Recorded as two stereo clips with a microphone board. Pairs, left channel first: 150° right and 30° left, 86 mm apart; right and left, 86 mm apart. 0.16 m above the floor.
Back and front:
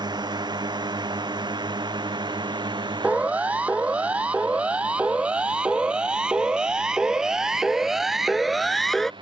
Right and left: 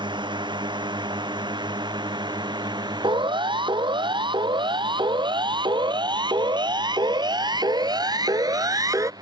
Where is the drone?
65° left; by 9.2 s 50° left.